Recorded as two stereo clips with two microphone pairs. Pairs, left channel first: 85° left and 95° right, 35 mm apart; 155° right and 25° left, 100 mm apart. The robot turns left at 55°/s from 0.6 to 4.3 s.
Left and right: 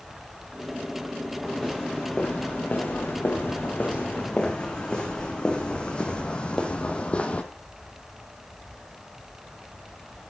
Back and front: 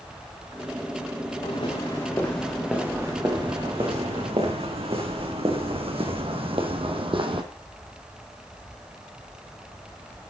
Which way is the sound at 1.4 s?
175° left.